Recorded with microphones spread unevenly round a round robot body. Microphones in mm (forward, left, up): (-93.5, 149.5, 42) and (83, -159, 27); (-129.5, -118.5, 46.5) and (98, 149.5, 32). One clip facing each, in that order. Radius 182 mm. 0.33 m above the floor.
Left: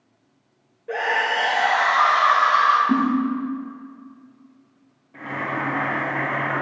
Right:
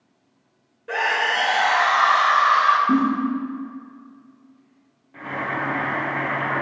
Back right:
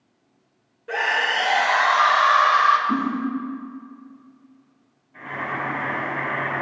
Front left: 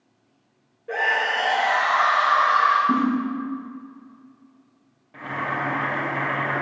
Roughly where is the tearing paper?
No tearing paper in this recording.